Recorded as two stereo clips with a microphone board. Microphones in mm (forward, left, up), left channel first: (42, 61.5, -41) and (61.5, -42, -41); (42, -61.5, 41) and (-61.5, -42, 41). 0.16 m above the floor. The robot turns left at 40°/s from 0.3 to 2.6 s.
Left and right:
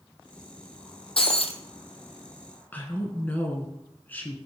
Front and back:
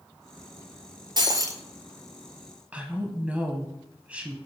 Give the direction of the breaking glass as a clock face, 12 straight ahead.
8 o'clock.